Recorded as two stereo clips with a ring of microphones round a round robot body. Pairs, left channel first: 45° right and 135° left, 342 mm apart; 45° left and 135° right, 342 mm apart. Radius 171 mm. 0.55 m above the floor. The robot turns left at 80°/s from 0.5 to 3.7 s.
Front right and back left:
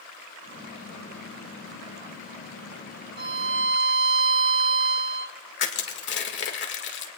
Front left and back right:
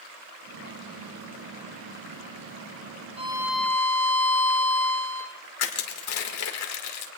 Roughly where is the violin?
Behind.